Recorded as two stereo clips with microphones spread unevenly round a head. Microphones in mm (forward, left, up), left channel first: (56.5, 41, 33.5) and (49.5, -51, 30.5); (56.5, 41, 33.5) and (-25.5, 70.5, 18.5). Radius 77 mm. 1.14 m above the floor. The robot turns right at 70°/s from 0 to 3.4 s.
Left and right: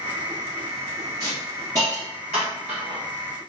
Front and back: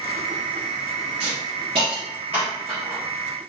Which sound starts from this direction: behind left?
A hiss, at 1.2 s.